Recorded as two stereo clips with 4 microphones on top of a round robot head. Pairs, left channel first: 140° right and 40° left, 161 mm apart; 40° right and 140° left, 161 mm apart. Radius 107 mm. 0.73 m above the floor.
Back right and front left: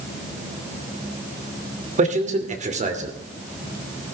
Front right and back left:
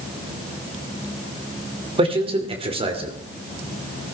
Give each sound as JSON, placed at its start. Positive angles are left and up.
{"t": 2.0, "sound": "a man speaking", "azimuth_deg": 85, "distance_m": 2.5}